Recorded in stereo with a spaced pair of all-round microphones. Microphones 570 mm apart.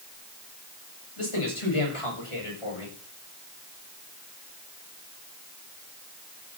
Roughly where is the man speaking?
Left.